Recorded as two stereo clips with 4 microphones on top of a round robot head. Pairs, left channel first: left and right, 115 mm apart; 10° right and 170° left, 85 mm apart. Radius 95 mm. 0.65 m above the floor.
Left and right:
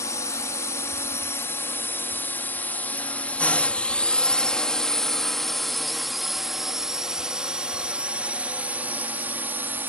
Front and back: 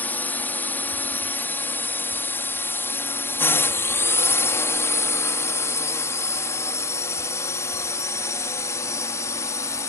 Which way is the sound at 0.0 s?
45° left.